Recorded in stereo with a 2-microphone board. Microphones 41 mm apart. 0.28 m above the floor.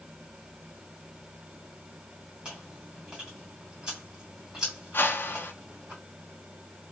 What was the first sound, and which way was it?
Chewing, 20° right (ahead or behind).